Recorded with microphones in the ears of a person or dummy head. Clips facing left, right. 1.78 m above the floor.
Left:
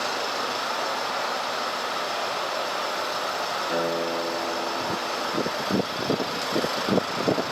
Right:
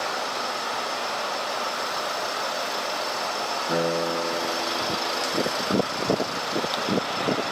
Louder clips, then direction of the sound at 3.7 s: Right 2 dB; 30° right (ahead or behind).